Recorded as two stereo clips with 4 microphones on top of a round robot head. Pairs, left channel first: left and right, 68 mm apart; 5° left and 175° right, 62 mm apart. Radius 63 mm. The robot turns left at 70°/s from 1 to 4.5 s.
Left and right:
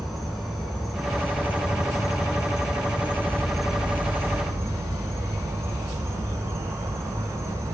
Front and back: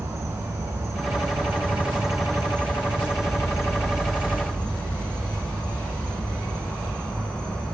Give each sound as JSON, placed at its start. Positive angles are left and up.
{"t": 0.0, "sound": "an insect", "azimuth_deg": 180, "distance_m": 1.1}